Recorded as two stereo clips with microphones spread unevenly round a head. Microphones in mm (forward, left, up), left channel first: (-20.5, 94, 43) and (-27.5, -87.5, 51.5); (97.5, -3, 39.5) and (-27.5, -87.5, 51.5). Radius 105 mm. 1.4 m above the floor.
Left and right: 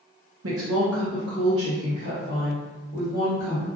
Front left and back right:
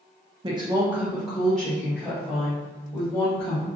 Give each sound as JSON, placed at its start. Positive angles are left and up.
{"t": 0.4, "sound": "a woman speaking", "azimuth_deg": -90, "distance_m": 0.9}